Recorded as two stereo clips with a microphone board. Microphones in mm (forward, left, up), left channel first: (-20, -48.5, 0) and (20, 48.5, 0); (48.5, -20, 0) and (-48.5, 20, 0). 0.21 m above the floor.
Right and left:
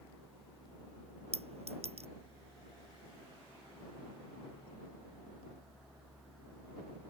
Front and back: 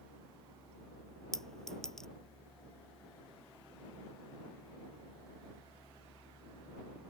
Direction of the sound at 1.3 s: 65° left.